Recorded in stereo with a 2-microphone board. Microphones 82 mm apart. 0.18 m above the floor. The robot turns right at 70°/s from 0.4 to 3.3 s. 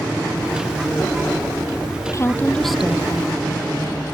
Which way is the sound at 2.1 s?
135° left.